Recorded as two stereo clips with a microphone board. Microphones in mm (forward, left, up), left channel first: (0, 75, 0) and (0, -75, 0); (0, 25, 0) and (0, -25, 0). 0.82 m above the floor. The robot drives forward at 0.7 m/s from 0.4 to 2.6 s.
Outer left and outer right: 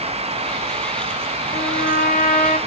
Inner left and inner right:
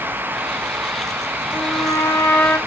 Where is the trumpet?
85° left, 2.5 m; by 2.6 s 70° left (ahead or behind), 2.5 m.